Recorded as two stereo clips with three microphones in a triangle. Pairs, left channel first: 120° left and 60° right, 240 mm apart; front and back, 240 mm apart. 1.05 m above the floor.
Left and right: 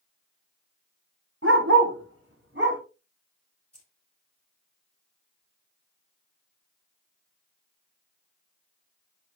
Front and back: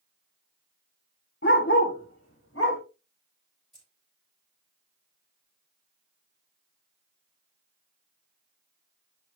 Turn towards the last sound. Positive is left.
turn(degrees=140)